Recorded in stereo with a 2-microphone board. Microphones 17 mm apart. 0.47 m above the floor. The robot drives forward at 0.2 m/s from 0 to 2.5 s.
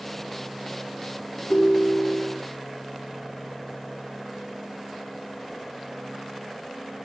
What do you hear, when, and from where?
1.5 s a ringtone: 75° left (ahead or behind), 0.5 m; by 2.4 s 60° left (ahead or behind), 0.6 m